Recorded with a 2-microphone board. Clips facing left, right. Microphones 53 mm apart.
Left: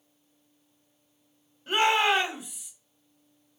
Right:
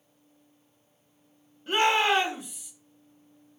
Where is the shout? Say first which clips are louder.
Even; centre (ahead or behind), 1.0 m.